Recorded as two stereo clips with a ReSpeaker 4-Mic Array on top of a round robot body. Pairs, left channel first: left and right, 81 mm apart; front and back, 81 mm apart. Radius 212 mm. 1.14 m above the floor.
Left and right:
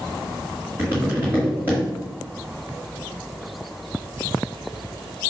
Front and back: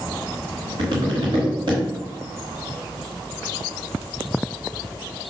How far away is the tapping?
About 1.1 m.